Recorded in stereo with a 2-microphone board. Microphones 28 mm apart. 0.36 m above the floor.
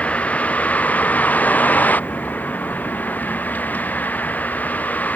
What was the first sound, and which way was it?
A vehicle, 55° left (ahead or behind).